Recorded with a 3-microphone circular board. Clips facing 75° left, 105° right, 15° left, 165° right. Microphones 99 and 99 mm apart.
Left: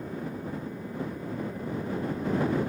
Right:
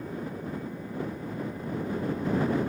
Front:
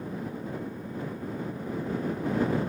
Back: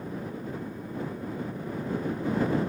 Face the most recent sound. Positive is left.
No sound to turn to.